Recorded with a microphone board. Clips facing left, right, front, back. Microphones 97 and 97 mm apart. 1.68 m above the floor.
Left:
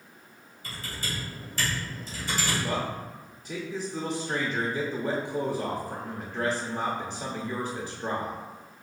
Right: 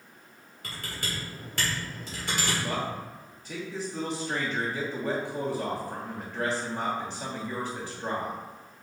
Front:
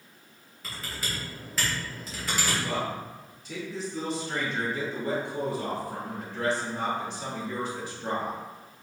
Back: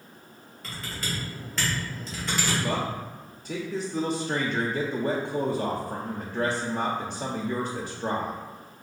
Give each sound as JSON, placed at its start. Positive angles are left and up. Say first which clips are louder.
{"t": 0.6, "sound": "typing on a keyboard", "louder": "even, back 2 dB", "azimuth_deg": -85, "distance_m": 1.7}
{"t": 2.6, "sound": "a man speaking", "louder": "left 1 dB, back 2 dB", "azimuth_deg": 170, "distance_m": 0.7}